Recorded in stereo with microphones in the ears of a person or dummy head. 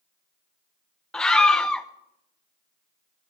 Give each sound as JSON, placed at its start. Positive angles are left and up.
{"t": 1.1, "sound": "a scream", "side_deg": 10, "distance_m": 0.9}